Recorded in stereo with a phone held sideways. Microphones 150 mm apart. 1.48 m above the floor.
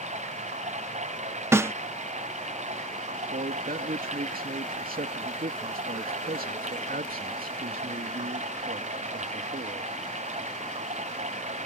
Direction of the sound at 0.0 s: 50° right (ahead or behind).